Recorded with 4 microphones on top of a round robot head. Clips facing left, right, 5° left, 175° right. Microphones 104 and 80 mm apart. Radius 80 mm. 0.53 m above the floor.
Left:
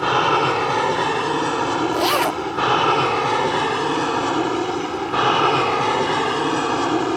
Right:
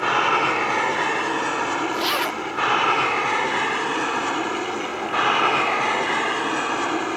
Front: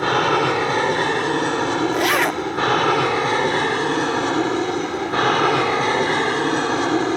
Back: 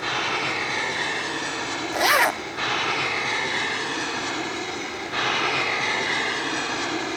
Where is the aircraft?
30° left; by 7.2 s 35° left.